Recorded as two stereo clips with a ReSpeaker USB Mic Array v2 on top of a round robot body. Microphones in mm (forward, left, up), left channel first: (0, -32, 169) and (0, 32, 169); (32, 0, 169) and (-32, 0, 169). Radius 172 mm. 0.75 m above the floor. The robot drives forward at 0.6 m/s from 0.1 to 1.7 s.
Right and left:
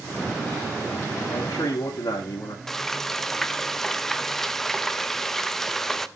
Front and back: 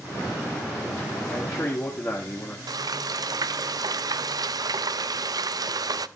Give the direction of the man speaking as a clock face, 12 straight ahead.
2 o'clock.